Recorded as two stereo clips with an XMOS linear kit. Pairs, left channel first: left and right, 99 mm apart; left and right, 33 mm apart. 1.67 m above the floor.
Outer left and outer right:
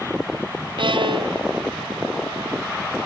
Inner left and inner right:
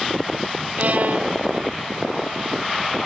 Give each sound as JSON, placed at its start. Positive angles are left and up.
{"t": 0.8, "sound": "a violin", "side_deg": -55, "distance_m": 0.9}